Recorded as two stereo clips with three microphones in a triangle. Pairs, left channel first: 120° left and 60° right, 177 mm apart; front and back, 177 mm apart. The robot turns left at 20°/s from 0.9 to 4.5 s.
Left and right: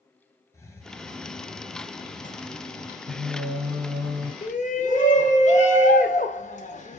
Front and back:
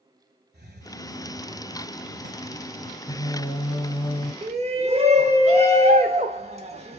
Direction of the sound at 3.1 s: 85° right.